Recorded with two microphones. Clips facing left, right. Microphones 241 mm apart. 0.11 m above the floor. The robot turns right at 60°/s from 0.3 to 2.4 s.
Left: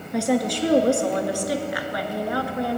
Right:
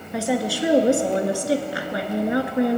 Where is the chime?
No chime in this recording.